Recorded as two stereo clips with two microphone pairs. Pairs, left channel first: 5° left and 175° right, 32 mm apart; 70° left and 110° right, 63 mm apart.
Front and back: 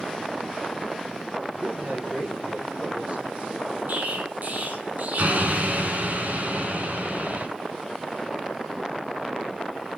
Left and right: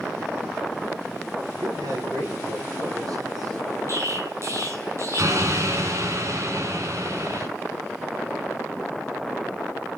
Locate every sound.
1.6 s a man speaking: 135° right, 7 m; by 3.6 s 120° right, 7 m
3.9 s an explosion: 150° right, 3.5 m